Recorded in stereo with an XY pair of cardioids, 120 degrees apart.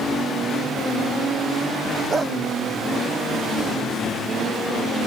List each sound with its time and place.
2.1 s a dog barking: 30° right